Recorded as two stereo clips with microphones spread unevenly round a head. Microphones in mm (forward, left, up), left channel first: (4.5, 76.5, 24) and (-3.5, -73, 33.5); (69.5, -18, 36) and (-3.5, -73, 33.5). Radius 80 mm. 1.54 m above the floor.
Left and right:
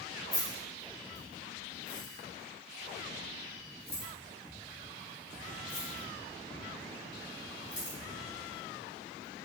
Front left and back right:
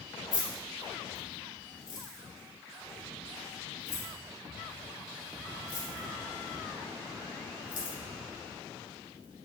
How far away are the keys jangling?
About 1.8 m.